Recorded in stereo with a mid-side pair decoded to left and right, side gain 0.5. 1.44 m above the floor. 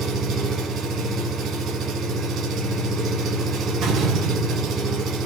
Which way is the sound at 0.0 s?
65° right.